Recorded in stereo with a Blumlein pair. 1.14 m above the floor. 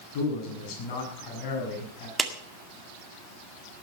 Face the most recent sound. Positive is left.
turn(degrees=-10)